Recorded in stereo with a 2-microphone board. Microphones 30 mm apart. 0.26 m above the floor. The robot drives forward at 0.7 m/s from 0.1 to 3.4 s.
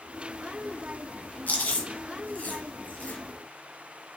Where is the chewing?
60° left (ahead or behind), 4 m; by 3.2 s 75° left (ahead or behind), 3.5 m.